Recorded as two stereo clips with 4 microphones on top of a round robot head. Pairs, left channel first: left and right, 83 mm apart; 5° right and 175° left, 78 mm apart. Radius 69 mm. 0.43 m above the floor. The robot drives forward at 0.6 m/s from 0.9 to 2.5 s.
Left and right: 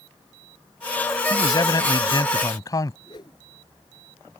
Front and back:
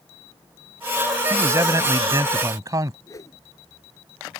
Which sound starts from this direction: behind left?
A man speaking, at 1.3 s.